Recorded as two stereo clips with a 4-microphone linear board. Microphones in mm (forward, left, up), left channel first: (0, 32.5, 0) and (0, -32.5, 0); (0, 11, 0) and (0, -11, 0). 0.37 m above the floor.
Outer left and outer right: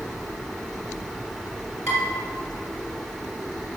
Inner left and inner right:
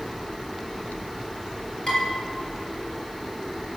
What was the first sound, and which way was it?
Dishes clattering, 45° left (ahead or behind).